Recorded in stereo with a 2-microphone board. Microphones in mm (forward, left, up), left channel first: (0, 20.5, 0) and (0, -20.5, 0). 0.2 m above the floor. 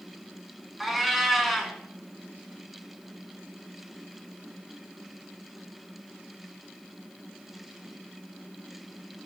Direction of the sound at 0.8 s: Centre (ahead or behind).